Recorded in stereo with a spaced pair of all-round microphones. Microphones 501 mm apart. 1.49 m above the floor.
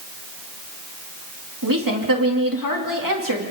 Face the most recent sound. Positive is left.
turn(degrees=-40)  # may be behind; listen again after turning